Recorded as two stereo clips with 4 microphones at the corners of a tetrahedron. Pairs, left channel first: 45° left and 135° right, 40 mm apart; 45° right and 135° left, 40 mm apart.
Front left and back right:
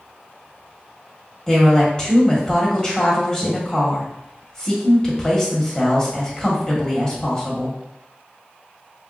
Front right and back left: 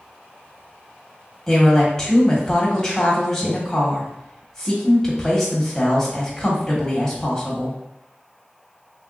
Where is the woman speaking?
10° left, 0.9 m.